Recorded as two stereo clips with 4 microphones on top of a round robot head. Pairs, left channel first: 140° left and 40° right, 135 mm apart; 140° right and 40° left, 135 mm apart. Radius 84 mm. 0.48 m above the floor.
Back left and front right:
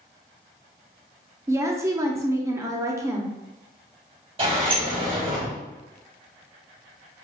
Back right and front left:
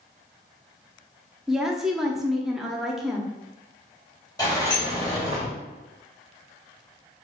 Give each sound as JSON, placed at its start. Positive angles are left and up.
{"t": 1.5, "sound": "a woman speaking", "azimuth_deg": -40, "distance_m": 0.7}
{"t": 4.4, "sound": "a sliding door", "azimuth_deg": -80, "distance_m": 2.0}